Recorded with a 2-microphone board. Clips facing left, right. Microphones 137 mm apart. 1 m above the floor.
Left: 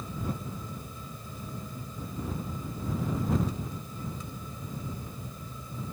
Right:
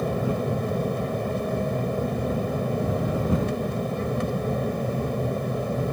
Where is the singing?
I don't hear singing.